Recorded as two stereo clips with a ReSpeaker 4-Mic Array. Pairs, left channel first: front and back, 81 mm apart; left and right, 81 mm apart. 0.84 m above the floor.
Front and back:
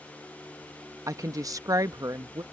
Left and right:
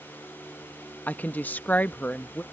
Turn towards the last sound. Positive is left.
turn(degrees=155)